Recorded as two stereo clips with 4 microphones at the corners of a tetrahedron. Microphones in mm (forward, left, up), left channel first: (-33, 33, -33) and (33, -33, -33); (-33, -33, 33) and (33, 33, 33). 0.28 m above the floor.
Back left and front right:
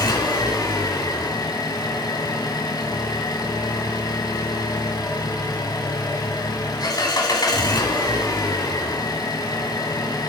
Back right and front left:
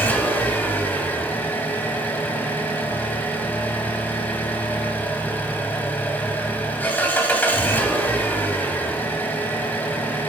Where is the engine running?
160° left, 1.8 m.